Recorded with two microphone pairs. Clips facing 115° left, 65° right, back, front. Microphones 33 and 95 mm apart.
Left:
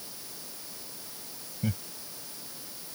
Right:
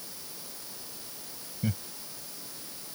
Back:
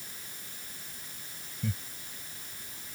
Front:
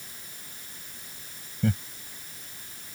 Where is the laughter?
25° left.